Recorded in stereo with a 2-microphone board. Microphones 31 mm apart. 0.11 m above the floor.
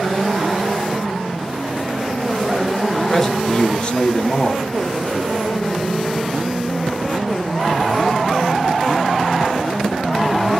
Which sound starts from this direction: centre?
A man speaking, at 3.1 s.